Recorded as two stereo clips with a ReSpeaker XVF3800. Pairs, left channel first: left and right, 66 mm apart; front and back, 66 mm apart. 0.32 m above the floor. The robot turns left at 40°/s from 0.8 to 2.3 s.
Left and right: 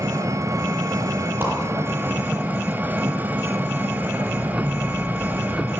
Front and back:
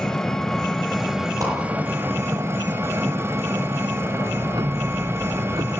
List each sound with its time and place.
0.0 s an engine running: 85° right, 1.8 m; by 5.8 s 145° right, 1.8 m
1.4 s a whoosh: 150° right, 10 m; by 1.5 s 155° right, 10 m
4.2 s ticking: 170° right, 1.2 m